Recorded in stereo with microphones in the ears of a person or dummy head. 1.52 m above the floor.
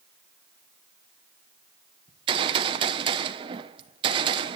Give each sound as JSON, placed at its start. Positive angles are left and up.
{"t": 2.1, "sound": "a gunshot", "side_deg": -30, "distance_m": 1.0}